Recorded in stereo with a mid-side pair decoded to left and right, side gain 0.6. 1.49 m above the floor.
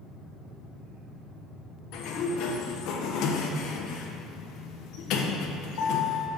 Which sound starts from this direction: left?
A sliding door, at 1.9 s.